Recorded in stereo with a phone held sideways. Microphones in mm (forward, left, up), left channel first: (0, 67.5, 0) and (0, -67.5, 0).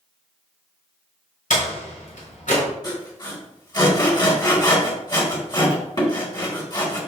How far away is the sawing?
About 3 m.